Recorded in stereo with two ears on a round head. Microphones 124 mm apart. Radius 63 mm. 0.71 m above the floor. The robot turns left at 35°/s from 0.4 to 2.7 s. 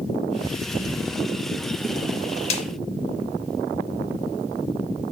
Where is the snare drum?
45° left (ahead or behind), 3 m; by 2.6 s 50° left (ahead or behind), 3 m.